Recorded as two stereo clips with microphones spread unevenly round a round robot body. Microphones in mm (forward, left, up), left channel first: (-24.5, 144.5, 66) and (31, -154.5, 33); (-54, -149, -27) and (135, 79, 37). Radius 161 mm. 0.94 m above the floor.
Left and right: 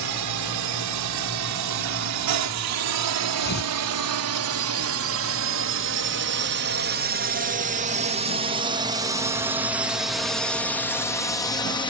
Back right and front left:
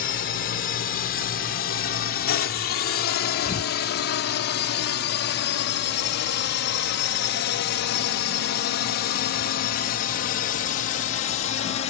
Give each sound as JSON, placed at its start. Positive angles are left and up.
{"t": 0.0, "sound": "a drone", "azimuth_deg": -75}
{"t": 3.4, "sound": "tearing paper", "azimuth_deg": 160}